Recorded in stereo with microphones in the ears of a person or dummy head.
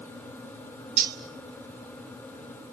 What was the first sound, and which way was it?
Cutlery clinking, 50° right (ahead or behind).